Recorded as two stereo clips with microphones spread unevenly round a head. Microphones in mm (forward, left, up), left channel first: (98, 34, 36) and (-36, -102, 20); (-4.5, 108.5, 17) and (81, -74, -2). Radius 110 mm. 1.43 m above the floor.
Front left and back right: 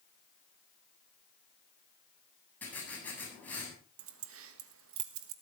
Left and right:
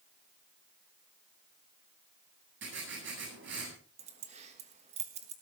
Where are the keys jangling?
130° right, 1.3 m.